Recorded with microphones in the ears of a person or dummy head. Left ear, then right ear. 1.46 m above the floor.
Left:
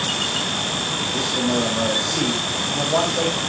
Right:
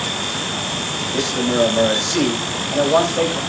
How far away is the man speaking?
About 5.5 m.